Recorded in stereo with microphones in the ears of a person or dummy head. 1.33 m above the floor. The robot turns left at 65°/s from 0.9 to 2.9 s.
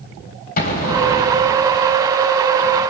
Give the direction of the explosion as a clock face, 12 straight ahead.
10 o'clock.